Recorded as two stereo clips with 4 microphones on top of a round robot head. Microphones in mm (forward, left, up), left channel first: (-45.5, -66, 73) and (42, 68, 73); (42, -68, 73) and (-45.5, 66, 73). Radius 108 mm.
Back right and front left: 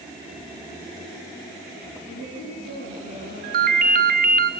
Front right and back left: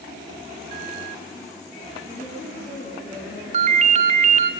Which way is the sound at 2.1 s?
125° right.